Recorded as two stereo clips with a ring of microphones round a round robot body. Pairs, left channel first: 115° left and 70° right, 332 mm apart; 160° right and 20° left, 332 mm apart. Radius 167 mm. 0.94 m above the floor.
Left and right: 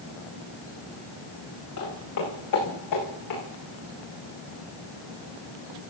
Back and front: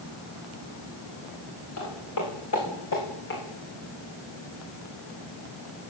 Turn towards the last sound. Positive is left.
turn(degrees=145)